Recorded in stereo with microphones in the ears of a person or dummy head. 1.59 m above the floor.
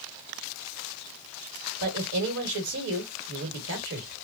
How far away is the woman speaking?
About 1.4 m.